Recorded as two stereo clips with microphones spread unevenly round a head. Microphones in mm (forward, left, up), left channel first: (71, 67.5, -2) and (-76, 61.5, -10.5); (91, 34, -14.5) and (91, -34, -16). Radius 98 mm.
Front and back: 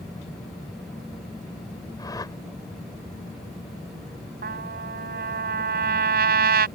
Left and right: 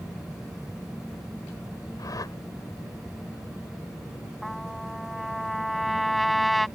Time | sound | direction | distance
2.0 | a whoosh | 65° left | ?
4.4 | a trumpet | straight behind | ?